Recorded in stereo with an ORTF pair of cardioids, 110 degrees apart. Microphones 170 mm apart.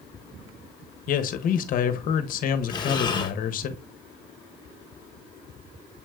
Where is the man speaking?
55° left, 0.9 m.